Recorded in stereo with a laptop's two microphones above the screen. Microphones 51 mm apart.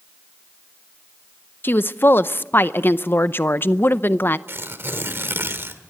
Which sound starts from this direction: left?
A woman speaking, at 1.6 s.